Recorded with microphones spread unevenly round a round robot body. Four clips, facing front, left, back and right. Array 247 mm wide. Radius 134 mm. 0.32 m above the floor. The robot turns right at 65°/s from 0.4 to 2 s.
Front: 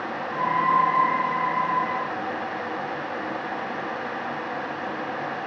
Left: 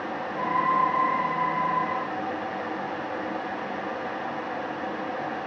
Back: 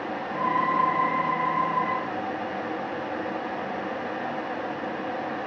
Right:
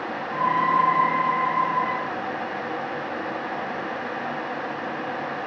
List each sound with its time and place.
Only background noise.